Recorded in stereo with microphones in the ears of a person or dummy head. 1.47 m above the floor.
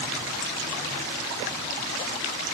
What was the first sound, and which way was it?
Only background noise.